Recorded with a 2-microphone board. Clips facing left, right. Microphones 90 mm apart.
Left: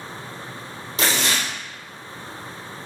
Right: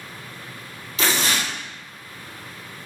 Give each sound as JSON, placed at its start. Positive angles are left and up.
{"t": 1.0, "sound": "tearing paper", "side_deg": 35, "distance_m": 1.9}